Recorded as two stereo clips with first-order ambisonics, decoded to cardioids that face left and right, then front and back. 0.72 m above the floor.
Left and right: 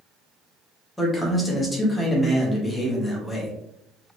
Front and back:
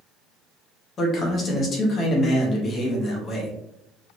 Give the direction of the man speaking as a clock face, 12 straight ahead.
12 o'clock.